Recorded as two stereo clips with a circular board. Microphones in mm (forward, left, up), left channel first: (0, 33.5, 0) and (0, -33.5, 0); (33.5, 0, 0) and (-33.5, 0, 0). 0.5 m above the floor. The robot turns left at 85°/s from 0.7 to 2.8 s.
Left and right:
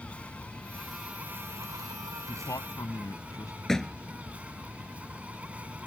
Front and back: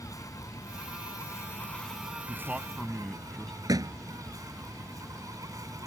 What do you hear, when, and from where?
0.0 s an insect: 20° left; by 5.9 s 160° right
2.3 s a man speaking: 130° left; by 3.6 s 85° left
3.7 s a thud: 170° left